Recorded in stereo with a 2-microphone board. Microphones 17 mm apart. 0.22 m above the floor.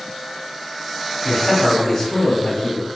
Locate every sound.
1.2 s a man speaking: 5° right (ahead or behind), 1.2 m; by 2.9 s 30° left (ahead or behind), 2 m